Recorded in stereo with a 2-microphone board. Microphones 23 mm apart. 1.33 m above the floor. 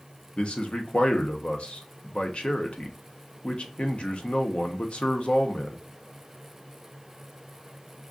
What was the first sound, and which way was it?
A man speaking, 50° left (ahead or behind).